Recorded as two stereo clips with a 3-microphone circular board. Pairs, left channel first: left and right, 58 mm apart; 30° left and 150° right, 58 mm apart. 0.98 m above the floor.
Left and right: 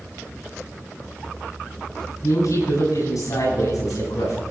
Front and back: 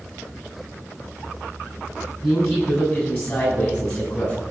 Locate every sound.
2.2 s a woman speaking: 75° left, 9 m; by 4.4 s 85° left, 9.5 m